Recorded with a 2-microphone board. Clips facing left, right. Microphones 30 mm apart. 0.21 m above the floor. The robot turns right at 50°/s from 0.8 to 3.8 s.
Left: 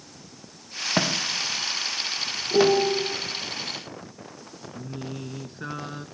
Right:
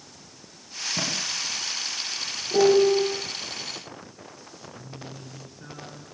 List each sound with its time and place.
1.0 s a thud: 70° left (ahead or behind), 5.5 m; by 2.8 s 15° left (ahead or behind), 5.5 m
2.5 s a piano: centre (ahead or behind), 5 m; by 3.1 s 30° right (ahead or behind), 5 m
4.8 s singing: 45° left (ahead or behind), 1.8 m